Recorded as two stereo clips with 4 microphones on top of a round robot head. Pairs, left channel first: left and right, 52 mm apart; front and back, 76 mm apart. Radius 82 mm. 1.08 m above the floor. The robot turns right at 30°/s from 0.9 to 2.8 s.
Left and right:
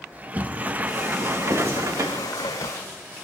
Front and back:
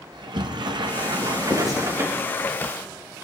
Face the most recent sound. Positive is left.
turn(degrees=-60)